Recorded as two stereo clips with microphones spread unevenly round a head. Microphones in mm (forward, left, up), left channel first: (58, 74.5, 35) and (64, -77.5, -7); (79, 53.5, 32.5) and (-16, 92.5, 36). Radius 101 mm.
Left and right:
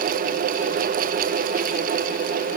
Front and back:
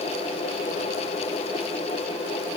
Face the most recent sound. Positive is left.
No sound to turn to.